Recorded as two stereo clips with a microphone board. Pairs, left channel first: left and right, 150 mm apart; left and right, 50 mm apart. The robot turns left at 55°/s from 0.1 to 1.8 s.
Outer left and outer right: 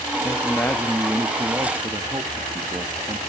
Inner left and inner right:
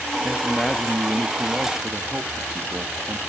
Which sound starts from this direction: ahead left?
A man speaking, at 0.2 s.